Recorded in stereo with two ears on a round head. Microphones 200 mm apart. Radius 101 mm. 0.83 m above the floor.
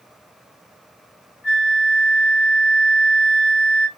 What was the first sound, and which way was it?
A flute, 45° left (ahead or behind).